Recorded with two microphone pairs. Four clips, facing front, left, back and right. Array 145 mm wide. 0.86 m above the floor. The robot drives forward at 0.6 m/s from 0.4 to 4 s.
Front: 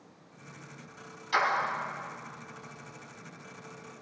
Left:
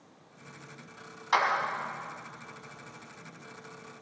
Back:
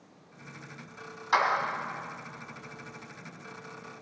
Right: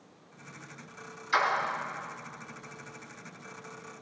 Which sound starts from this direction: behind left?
A clap, at 1.3 s.